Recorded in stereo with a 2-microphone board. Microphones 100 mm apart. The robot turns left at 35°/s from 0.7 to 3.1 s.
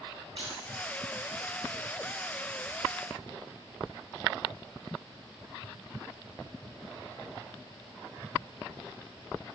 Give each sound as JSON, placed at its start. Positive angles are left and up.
{"t": 0.4, "sound": "keys jangling", "side_deg": -70, "distance_m": 4.5}